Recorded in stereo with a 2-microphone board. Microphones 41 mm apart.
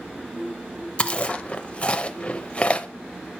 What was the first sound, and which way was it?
Chewing, 30° left (ahead or behind).